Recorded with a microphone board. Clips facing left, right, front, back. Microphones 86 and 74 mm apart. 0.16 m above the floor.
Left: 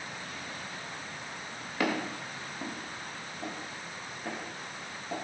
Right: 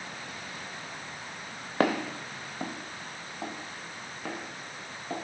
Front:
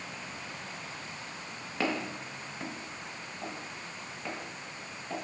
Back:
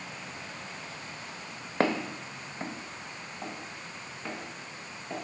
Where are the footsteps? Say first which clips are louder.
Right 4 dB, back 4 dB; 130° right, 0.6 m; by 5.2 s 90° right, 2 m.